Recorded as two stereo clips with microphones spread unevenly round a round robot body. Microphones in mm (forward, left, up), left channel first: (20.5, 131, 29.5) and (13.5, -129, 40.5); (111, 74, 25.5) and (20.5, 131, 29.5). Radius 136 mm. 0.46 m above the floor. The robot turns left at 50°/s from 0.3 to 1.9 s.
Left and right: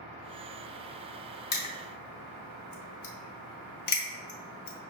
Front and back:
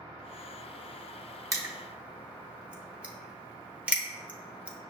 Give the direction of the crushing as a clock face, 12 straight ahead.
9 o'clock.